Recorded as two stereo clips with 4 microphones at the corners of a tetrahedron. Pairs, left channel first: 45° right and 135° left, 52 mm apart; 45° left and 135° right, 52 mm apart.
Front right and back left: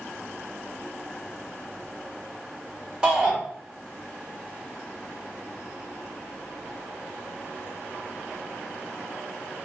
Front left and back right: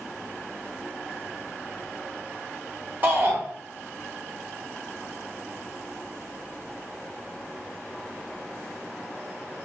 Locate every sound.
3.0 s a shout: 160° right, 1.2 m